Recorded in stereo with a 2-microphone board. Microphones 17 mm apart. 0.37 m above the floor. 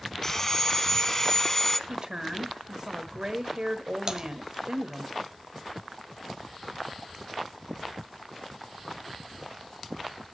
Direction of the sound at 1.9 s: 35° right (ahead or behind).